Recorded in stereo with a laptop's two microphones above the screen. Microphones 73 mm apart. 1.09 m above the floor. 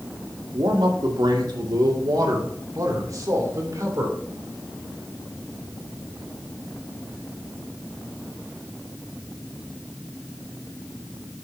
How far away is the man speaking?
About 2.0 m.